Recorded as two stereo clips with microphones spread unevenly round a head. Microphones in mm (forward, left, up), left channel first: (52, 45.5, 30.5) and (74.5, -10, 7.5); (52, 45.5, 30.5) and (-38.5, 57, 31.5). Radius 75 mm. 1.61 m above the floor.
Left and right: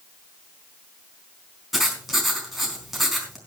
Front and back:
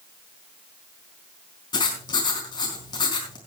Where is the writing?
30° left, 4 m.